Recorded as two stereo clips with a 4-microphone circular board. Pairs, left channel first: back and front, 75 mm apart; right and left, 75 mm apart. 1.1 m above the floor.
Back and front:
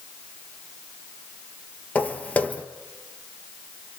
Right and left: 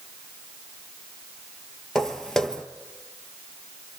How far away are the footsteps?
About 1.1 m.